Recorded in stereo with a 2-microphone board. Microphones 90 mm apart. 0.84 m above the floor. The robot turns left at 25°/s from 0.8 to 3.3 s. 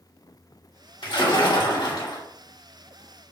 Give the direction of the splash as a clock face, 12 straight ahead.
9 o'clock.